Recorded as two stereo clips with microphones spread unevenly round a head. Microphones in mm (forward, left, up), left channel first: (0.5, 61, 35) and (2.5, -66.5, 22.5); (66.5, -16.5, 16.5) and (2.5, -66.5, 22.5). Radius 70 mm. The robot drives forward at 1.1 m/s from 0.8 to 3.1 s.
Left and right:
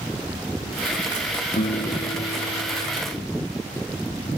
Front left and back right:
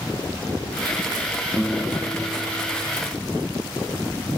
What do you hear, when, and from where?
1.6 s a guitar: 125° left; by 3.0 s 130° left